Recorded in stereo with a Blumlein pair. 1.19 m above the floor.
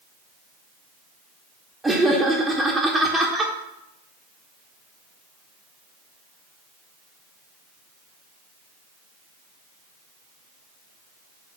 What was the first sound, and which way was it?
Laughter, 5° right.